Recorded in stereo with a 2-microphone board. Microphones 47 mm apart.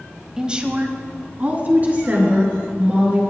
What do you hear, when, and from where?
0.4 s a woman speaking: 15° right (ahead or behind), 1.0 m; by 3.2 s 35° right (ahead or behind), 4.5 m